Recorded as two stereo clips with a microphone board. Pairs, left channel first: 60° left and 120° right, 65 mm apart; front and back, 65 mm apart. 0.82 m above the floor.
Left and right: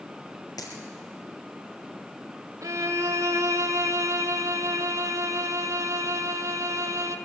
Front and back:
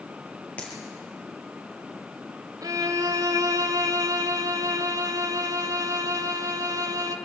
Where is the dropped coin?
70° left, 3.5 m.